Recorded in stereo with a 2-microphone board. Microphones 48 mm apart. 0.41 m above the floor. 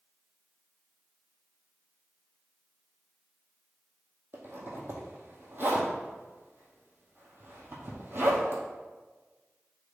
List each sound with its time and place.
4.3 s a zipper: 50° right (ahead or behind), 2.0 m